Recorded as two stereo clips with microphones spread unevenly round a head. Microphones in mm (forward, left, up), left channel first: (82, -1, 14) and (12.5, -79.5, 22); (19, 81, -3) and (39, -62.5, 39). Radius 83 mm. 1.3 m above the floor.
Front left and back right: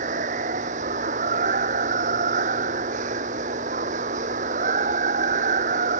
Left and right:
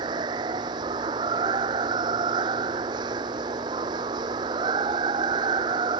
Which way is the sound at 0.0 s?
145° right.